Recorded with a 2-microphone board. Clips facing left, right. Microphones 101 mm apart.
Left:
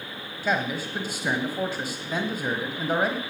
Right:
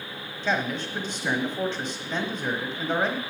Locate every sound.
0.4 s a man speaking: 5° left (ahead or behind), 1.1 m